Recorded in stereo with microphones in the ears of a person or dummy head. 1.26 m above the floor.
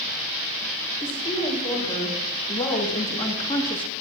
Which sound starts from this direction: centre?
A woman speaking, at 1.0 s.